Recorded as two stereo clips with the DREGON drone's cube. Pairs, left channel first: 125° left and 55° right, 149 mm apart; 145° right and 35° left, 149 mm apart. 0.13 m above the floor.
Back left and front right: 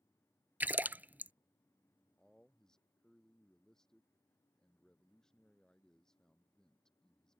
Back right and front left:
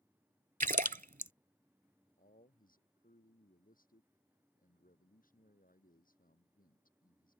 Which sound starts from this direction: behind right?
A man speaking, at 2.2 s.